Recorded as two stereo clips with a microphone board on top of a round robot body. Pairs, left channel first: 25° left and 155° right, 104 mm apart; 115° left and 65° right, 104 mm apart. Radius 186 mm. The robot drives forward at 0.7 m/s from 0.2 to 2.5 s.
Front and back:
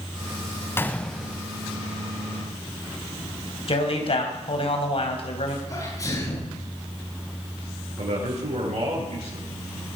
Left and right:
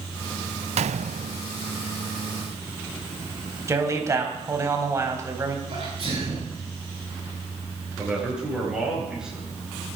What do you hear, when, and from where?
0.8 s a gunshot: 45° right, 0.7 m; by 1.4 s 85° right, 0.5 m
3.7 s a man speaking: 5° right, 3.5 m
5.7 s a sneeze: 35° right, 10 m
8.0 s a man speaking: 150° right, 8 m